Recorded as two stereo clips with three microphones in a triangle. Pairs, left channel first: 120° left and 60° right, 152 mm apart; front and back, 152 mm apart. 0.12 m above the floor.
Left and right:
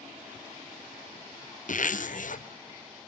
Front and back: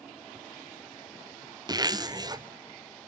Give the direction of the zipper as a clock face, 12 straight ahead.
8 o'clock.